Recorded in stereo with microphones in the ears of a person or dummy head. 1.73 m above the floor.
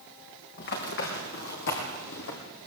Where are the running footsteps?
55° left (ahead or behind), 3.5 m; by 2.4 s 60° left (ahead or behind), 3.5 m.